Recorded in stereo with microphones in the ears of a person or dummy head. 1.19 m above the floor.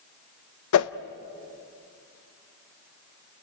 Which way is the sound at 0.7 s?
70° left (ahead or behind).